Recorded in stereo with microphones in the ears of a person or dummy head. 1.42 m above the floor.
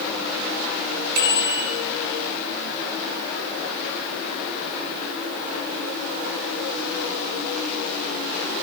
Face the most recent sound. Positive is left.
turn(degrees=-55)  # may be behind; listen again after turning